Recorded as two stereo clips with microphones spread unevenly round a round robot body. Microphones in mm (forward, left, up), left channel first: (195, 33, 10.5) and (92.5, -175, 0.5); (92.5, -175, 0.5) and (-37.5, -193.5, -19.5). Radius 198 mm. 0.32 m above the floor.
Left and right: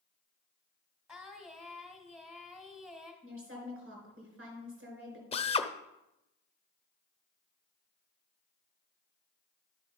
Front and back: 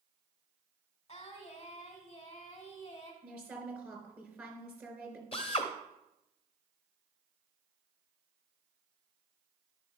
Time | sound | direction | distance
1.1 | singing | 25° right | 2 m
3.2 | a woman speaking | 95° right | 4 m
5.3 | a drill | 15° left | 0.6 m